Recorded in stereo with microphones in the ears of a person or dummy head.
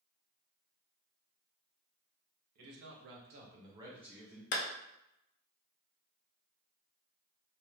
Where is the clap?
50° left (ahead or behind), 0.6 m.